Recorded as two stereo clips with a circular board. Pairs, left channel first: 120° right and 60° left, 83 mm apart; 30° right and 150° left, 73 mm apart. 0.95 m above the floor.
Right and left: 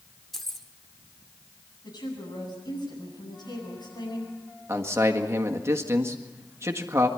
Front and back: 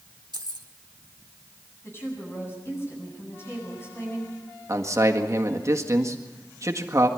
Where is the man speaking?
110° left, 1.7 m.